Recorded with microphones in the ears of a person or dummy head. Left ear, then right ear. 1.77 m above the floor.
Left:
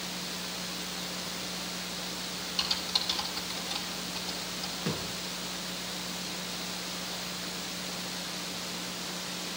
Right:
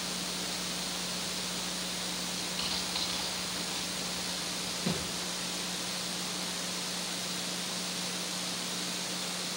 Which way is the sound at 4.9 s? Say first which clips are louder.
Even; 40° left (ahead or behind).